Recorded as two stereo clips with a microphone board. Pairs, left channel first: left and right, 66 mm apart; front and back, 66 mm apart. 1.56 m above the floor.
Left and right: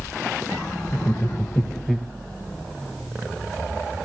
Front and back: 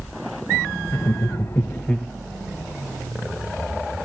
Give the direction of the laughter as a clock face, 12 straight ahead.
11 o'clock.